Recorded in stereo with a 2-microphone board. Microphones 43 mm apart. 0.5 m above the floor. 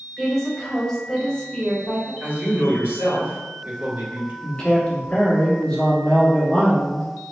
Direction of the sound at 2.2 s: 50° right (ahead or behind).